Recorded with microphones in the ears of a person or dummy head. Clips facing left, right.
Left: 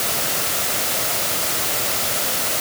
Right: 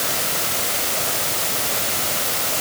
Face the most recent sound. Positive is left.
No sound to turn to.